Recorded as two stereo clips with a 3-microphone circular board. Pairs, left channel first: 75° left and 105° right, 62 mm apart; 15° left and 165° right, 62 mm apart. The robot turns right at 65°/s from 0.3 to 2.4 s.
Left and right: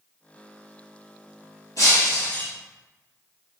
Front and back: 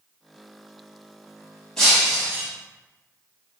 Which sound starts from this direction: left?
Breaking glass, at 1.8 s.